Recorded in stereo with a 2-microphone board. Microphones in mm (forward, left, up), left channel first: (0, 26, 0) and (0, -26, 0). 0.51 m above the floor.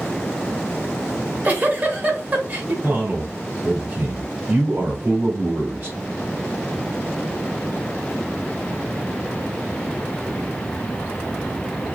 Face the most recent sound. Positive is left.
turn(degrees=-40)  # may be behind; listen again after turning